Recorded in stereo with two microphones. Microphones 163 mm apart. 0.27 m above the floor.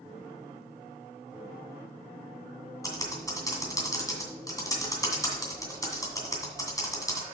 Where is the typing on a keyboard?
20° left (ahead or behind), 2 m.